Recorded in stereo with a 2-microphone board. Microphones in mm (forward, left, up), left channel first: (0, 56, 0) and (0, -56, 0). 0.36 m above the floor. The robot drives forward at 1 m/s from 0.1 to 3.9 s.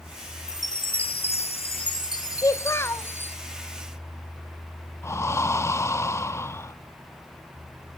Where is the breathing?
25° left (ahead or behind), 0.5 m.